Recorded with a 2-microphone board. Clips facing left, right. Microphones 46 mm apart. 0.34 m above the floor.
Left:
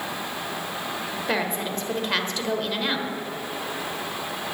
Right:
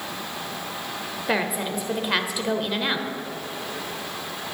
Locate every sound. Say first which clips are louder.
1.3 s a woman speaking: right 2 dB; 5° right (ahead or behind), 1.2 m